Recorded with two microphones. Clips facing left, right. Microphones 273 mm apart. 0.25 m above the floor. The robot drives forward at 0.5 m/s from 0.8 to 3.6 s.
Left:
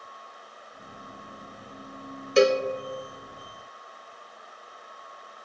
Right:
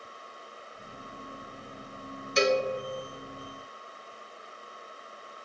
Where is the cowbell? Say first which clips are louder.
Left 5 dB; 65° left (ahead or behind), 0.5 m; by 2.6 s 50° left (ahead or behind), 0.6 m.